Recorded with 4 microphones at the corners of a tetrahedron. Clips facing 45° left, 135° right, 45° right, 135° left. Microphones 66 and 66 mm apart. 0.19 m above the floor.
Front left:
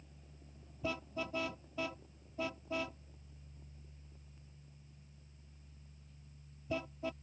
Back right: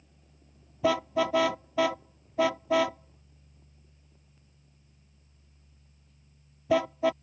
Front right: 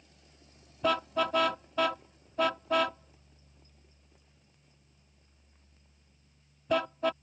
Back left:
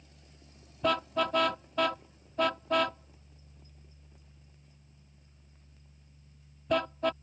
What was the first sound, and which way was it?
A car horn, 135° right.